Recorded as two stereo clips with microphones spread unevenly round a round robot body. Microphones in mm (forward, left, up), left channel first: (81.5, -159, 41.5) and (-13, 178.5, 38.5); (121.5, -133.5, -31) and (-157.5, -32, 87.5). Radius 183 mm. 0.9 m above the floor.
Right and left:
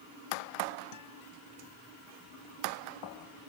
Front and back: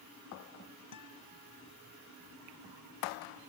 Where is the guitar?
35° right.